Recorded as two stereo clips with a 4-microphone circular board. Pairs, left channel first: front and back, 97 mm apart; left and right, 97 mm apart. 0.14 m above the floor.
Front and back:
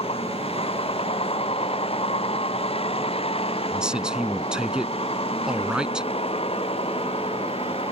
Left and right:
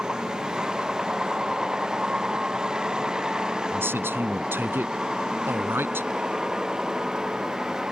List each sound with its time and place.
0.0 s a vehicle: 5° right
3.7 s a man speaking: 110° right